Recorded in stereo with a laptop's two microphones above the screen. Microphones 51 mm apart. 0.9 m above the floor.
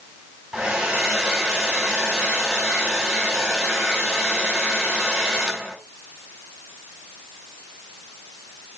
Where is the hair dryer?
15° right (ahead or behind), 4 m.